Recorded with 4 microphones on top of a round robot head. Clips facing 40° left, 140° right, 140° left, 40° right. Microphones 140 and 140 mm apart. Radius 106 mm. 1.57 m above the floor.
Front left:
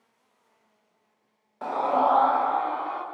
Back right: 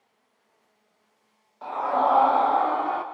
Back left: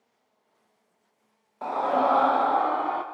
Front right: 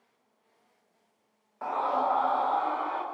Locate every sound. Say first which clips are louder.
1.6 s a scream: front left 1 dB, back left 4 dB; 75° left, 0.5 m; by 3.0 s 175° right, 0.8 m